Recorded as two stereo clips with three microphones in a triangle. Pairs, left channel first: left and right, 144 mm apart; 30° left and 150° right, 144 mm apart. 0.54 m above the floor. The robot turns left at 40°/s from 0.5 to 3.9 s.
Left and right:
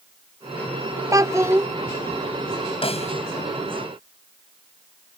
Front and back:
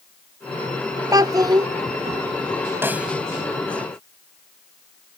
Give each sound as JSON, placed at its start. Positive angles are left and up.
{"t": 1.1, "sound": "a child speaking", "azimuth_deg": -125}
{"t": 2.8, "sound": "a snare drum", "azimuth_deg": 135}